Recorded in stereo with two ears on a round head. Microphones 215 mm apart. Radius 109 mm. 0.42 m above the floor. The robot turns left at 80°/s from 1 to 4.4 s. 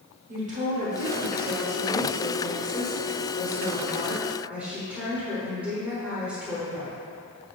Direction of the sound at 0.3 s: 100° right.